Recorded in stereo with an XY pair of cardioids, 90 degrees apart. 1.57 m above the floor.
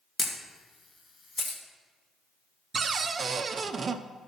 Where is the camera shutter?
40° left, 1.8 m.